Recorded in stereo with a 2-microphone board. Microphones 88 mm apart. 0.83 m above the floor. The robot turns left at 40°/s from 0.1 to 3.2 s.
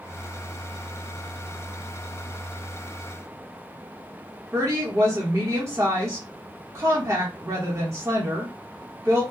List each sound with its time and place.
4.5 s a woman speaking: 35° right (ahead or behind), 1.1 m